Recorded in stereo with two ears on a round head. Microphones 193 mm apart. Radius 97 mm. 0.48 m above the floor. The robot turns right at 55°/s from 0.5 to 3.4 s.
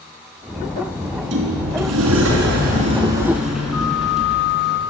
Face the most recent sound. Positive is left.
turn(degrees=-5)